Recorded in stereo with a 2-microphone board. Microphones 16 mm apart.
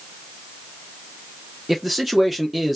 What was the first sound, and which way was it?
A man speaking, 5° right (ahead or behind).